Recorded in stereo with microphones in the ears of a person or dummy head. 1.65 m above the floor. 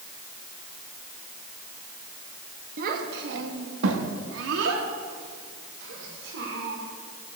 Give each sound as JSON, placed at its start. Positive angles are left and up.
{"t": 2.8, "sound": "a child speaking", "side_deg": -45, "distance_m": 1.7}